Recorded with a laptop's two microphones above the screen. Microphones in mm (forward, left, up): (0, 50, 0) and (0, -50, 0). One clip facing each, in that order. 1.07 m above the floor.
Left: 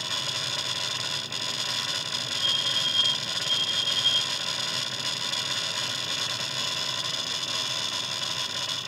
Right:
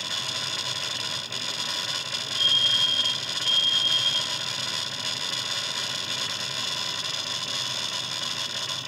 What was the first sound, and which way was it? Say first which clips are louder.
A fire alarm: right 4 dB; centre (ahead or behind).